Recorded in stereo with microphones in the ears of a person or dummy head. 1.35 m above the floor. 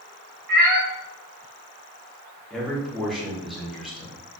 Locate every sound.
0.5 s a cat meowing: 60° right (ahead or behind), 1.3 m
2.5 s a man speaking: centre (ahead or behind), 0.9 m